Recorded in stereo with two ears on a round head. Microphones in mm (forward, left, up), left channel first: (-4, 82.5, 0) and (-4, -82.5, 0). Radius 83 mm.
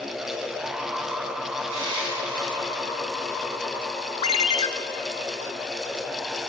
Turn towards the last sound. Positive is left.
turn(degrees=30)  # may be behind; listen again after turning